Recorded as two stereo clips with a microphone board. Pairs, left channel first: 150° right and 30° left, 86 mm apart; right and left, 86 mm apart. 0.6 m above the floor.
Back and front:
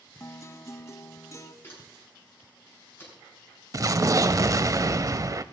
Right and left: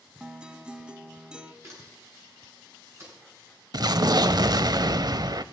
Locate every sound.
0.2 s a guitar: 165° left, 0.6 m
1.6 s a camera shutter: 145° left, 6 m
3.7 s an explosion: 70° left, 0.5 m